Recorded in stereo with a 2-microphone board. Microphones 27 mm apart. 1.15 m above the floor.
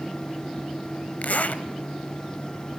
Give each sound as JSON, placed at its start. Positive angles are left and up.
{"t": 1.2, "sound": "a zipper", "side_deg": 65, "distance_m": 1.7}